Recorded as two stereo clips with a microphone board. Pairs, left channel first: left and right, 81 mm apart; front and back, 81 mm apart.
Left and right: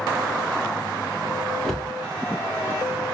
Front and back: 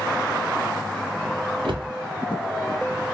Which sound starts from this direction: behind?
A cupboard door, at 1.6 s.